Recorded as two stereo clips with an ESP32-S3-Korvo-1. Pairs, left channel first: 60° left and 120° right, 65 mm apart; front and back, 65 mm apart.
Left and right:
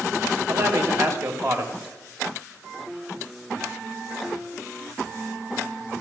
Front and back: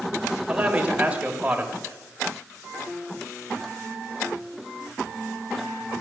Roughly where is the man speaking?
Behind right.